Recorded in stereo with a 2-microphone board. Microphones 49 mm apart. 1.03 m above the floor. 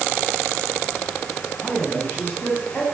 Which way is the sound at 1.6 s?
45° left (ahead or behind).